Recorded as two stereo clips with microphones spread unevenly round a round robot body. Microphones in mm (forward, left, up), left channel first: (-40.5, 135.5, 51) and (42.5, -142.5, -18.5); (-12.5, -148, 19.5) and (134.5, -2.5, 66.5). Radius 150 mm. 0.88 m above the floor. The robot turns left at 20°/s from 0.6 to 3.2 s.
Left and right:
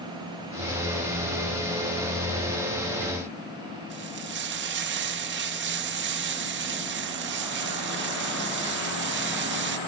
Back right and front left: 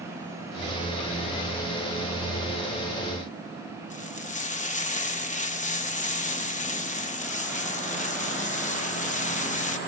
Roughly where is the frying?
Right.